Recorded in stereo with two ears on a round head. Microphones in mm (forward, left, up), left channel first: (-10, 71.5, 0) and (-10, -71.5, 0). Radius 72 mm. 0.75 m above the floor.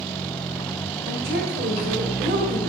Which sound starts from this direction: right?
A woman speaking, at 1.1 s.